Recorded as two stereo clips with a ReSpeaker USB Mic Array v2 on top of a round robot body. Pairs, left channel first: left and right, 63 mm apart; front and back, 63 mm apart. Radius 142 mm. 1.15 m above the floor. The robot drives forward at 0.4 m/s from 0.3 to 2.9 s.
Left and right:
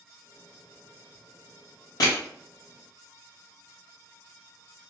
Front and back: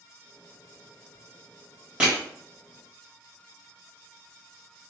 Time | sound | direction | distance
2.0 | crushing | 105° left | 1.5 m